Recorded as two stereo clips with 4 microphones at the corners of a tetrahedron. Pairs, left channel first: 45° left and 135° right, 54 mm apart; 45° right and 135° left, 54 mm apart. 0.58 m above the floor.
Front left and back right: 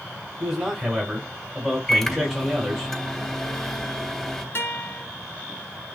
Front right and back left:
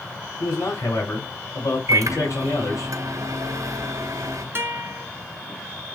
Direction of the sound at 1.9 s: 125° left.